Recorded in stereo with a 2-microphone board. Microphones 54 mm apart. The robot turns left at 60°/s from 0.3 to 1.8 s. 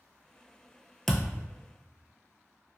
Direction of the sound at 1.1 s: 10° left (ahead or behind).